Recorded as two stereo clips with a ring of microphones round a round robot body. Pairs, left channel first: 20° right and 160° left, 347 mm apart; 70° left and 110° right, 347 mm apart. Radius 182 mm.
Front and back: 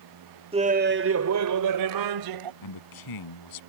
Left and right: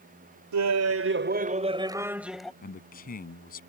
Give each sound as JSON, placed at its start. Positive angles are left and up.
{"t": 0.5, "sound": "laughter", "azimuth_deg": -130}
{"t": 2.6, "sound": "a man speaking", "azimuth_deg": 0}